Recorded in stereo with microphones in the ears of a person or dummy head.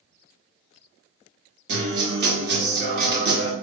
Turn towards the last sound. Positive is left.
turn(degrees=-55)  # may be behind; listen again after turning